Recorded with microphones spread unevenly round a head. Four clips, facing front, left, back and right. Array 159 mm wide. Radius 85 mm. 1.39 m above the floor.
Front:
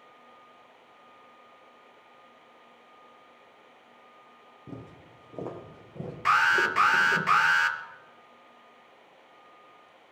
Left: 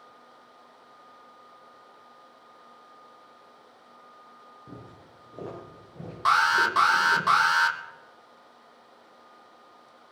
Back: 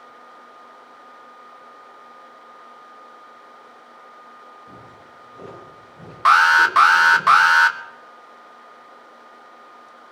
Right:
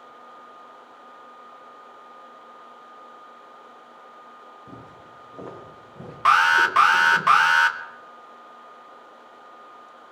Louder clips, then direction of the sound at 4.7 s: Right 4 dB, back 2 dB; 5° left.